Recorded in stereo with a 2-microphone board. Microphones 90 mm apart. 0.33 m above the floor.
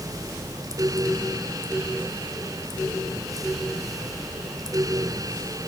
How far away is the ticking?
No ticking in this recording.